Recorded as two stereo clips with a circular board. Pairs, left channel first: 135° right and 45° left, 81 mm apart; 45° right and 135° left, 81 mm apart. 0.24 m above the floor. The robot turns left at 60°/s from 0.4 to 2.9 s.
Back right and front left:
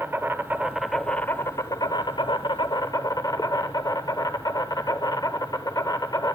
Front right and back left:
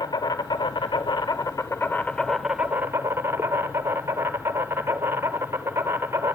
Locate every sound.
0.0 s an insect: 15° right, 0.7 m; by 6.4 s 165° right, 0.7 m